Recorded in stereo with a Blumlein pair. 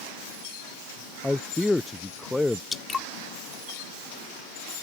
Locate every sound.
1.2 s a man speaking: 5° left
2.7 s dripping: 15° left